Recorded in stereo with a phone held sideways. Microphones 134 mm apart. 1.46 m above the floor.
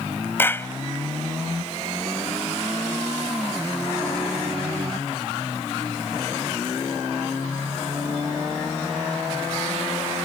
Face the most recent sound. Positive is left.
turn(degrees=15)  # may be behind; listen again after turning